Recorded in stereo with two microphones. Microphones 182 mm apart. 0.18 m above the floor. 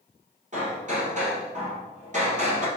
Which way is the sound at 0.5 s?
40° right (ahead or behind).